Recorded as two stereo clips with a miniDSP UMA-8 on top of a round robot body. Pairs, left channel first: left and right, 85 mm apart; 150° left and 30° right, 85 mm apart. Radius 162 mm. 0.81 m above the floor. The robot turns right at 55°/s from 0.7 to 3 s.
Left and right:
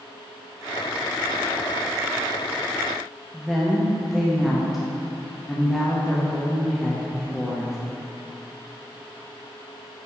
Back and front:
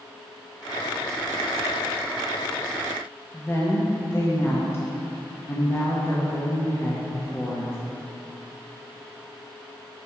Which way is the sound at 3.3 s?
Straight behind.